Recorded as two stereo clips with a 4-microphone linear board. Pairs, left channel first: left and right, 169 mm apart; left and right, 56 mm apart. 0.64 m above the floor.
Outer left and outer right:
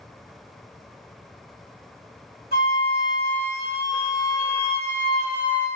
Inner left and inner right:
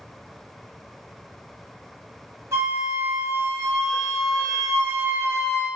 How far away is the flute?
About 1.6 m.